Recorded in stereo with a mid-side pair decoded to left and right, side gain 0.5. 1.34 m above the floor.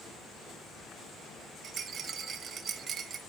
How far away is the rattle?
About 1.5 m.